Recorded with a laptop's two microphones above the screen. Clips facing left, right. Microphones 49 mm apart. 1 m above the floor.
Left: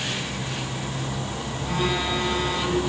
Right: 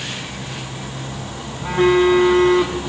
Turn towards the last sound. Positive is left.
turn(degrees=-60)  # may be behind; listen again after turning